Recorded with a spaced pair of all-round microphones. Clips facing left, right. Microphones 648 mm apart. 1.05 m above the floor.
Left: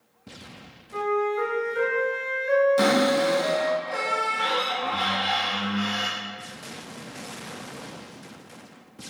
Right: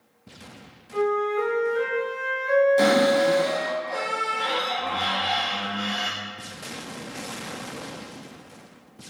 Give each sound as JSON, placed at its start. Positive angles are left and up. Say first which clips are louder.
{"t": 0.9, "sound": "a flute", "louder": "right 2 dB", "side_deg": -35, "distance_m": 1.7}
{"t": 2.8, "sound": "a cupboard door", "louder": "right 2 dB", "side_deg": 40, "distance_m": 0.6}